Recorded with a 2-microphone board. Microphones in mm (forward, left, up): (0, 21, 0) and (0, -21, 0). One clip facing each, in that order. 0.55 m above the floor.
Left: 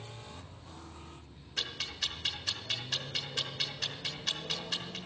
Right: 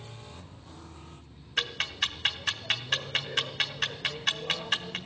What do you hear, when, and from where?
1.6 s ticking: 50° right (ahead or behind), 1.1 m